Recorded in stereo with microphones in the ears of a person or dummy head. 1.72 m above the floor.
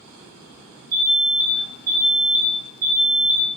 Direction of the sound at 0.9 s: 50° right (ahead or behind).